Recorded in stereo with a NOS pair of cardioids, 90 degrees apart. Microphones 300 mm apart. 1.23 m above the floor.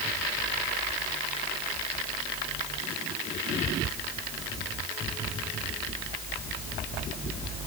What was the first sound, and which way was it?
Only background noise.